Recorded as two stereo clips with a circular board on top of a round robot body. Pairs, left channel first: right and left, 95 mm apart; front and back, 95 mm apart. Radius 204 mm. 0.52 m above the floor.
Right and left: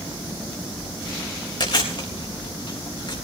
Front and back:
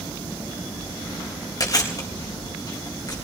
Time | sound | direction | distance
1.6 | chewing | 50° right | 4.5 m